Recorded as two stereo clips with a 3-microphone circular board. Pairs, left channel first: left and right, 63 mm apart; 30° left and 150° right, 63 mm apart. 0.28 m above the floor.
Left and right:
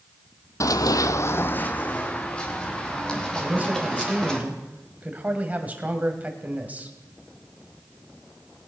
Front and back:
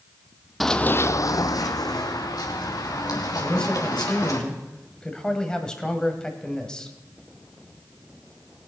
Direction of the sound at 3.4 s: 40° right.